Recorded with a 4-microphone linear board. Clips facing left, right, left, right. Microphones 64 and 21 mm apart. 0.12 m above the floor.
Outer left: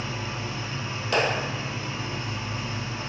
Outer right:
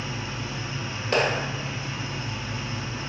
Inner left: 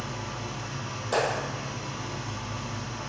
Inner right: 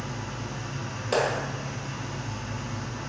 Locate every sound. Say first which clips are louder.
0.0 s an engine running: outer left 1 dB, even; 45° left (ahead or behind), 1.5 m
1.1 s a clap: outer right 1 dB, inner right 1 dB; 30° right (ahead or behind), 1.9 m